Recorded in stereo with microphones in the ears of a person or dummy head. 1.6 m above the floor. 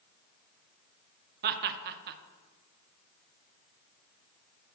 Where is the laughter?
50° right (ahead or behind), 0.7 m.